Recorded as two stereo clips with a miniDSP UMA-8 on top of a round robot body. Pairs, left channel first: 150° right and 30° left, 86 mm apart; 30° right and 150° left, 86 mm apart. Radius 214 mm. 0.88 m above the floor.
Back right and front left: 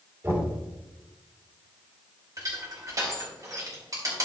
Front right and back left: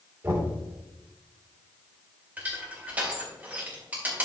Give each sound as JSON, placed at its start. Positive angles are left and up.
{"t": 0.2, "sound": "knocking", "azimuth_deg": 90, "distance_m": 3.0}
{"t": 2.4, "sound": "crushing", "azimuth_deg": 75, "distance_m": 3.0}